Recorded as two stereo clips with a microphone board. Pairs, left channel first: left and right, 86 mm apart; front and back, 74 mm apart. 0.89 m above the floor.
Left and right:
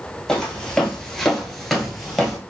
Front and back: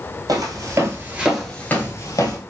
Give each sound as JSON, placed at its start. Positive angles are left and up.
{"t": 0.3, "sound": "footsteps", "azimuth_deg": 175, "distance_m": 1.4}